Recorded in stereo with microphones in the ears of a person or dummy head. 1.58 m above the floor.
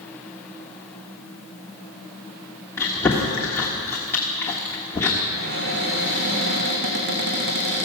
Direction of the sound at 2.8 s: 10° left (ahead or behind).